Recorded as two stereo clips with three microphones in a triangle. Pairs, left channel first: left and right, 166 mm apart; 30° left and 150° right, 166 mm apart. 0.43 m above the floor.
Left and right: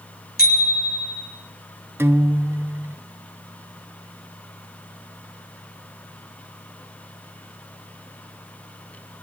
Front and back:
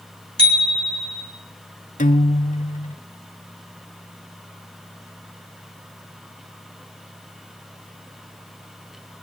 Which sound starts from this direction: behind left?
A bicycle bell, at 0.4 s.